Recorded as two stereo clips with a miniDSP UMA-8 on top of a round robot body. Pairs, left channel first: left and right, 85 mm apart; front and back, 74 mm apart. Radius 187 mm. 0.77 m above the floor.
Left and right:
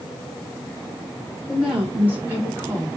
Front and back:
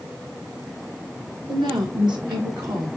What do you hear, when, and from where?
1.5 s a woman speaking: 170° right, 5 m; by 2.9 s 145° right, 5.5 m